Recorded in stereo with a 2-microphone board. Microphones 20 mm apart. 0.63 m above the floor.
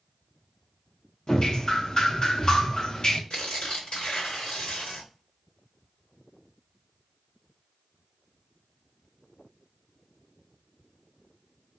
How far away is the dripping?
About 0.7 m.